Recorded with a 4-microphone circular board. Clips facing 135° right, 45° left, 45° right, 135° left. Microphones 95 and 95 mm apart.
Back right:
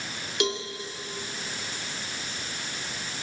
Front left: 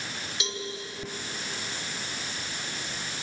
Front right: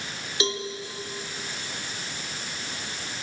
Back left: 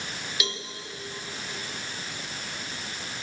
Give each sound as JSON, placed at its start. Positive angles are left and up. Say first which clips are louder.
{"t": 0.4, "sound": "a cowbell", "louder": "back right 10 dB, front right 9 dB", "azimuth_deg": -105, "distance_m": 2.5}